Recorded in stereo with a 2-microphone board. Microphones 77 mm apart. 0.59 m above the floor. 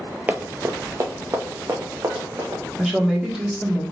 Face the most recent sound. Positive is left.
turn(degrees=-5)  # may be behind; listen again after turning